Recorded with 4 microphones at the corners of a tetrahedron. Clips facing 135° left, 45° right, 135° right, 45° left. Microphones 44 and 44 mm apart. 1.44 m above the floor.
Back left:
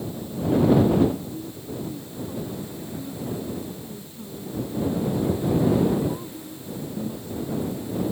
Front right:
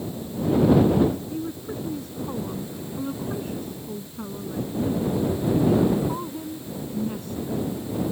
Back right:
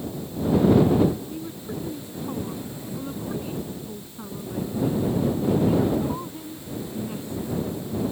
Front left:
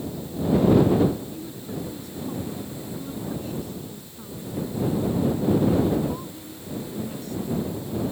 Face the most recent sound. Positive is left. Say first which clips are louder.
# front right 3 dB, back right 1 dB
turn(degrees=-65)